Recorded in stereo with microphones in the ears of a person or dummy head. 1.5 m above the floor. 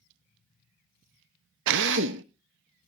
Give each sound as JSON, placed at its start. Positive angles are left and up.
{"t": 1.7, "sound": "a drill", "side_deg": -65, "distance_m": 0.7}